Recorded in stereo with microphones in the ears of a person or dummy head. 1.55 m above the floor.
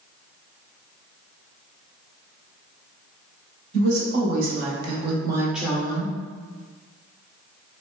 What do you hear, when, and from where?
3.7 s a woman speaking: 65° right (ahead or behind), 1.2 m; by 6.1 s 30° left (ahead or behind), 0.6 m